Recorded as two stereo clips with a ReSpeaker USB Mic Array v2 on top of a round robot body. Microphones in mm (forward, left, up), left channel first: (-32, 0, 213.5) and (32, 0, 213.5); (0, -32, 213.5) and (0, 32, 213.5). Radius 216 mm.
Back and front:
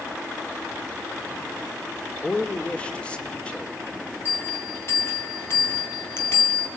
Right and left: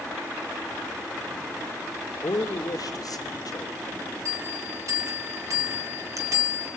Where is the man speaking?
105° right, 2.5 m.